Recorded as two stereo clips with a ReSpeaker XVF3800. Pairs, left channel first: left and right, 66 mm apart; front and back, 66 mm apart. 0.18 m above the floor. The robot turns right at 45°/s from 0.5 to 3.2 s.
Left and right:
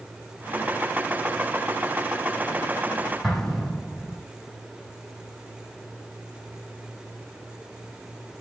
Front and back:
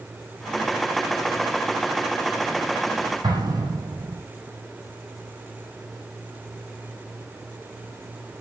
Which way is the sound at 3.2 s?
175° left.